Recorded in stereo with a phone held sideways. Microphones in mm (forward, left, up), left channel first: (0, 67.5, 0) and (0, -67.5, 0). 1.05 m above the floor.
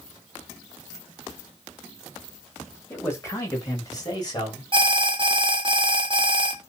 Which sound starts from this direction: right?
An alarm, at 4.7 s.